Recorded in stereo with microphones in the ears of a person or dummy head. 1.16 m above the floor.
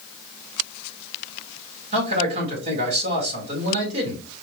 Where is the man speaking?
45° right (ahead or behind), 2 m.